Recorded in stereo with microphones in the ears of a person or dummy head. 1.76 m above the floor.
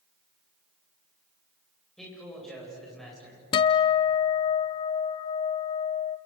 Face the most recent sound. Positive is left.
turn(degrees=25)  # may be behind; listen again after turning